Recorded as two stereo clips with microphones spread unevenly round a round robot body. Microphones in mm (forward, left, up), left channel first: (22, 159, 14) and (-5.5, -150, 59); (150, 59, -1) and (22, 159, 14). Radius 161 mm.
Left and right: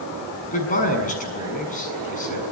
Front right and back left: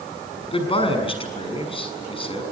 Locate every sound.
0.5 s a man speaking: 20° left, 7 m